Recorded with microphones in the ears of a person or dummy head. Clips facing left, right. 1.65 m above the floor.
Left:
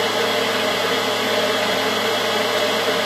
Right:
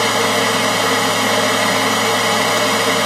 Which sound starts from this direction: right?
A machine running, at 0.0 s.